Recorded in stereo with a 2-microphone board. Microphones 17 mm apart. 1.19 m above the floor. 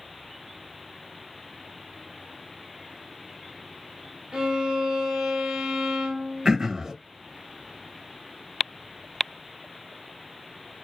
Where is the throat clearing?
35° right (ahead or behind), 0.6 m.